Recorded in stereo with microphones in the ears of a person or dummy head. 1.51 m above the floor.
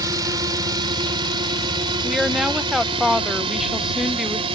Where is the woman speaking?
Centre (ahead or behind).